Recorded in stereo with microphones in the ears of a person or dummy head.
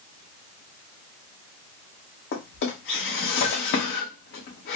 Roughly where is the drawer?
Left.